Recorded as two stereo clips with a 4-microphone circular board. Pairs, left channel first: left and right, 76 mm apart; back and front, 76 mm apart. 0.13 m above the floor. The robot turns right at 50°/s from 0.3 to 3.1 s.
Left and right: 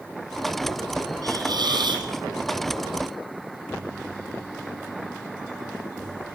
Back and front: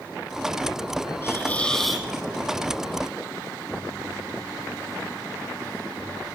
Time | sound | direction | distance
1.2 | a hiss | 125° right | 4.5 m